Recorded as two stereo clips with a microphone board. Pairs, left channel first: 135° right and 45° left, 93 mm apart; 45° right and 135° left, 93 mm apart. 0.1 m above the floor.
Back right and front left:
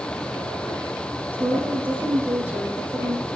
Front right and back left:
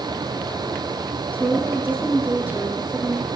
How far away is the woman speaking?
About 1.3 m.